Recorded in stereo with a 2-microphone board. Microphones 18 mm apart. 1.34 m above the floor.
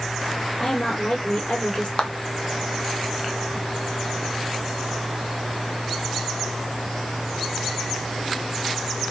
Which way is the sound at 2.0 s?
60° left (ahead or behind).